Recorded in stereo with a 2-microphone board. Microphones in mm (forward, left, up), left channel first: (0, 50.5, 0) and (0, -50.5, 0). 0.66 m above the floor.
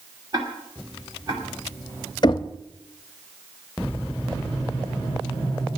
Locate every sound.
0.3 s ticking: 40° right (ahead or behind), 2.5 m
2.2 s knocking: 45° left (ahead or behind), 0.6 m